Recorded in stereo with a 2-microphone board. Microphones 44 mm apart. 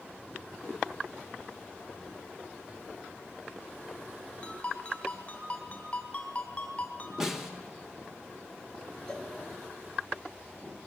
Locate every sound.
4.4 s a ringtone: 25° left (ahead or behind), 3.5 m
7.2 s a snare drum: 10° right (ahead or behind), 2 m
9.1 s a cowbell: 15° left (ahead or behind), 2.5 m